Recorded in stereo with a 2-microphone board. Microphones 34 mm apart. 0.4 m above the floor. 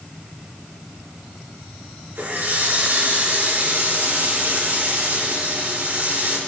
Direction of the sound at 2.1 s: 80° right.